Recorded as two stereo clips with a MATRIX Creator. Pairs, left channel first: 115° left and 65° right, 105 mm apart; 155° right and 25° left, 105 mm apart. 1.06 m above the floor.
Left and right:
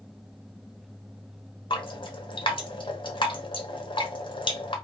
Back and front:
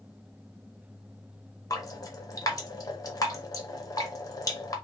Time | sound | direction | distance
1.7 | dripping | 145° left | 1.1 m